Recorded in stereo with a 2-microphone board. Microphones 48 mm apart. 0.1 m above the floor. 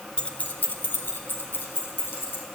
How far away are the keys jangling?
About 0.8 m.